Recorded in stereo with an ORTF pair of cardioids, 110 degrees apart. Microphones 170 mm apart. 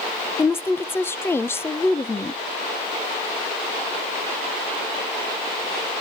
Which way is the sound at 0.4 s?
15° left.